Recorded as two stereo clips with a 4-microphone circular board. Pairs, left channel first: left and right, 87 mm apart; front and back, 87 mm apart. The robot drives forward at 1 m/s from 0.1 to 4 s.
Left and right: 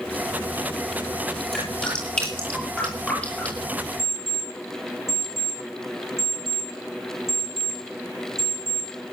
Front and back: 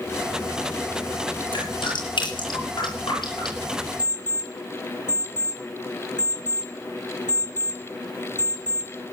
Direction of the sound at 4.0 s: 150° left.